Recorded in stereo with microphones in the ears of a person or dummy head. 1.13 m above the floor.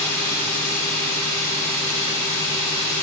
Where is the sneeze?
No sneeze in this recording.